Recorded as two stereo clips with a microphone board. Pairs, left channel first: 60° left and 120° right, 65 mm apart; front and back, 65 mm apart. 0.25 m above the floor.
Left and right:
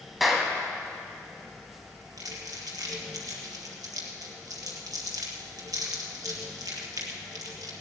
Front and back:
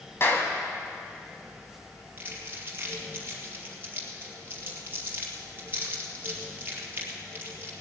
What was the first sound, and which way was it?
A clap, 30° right.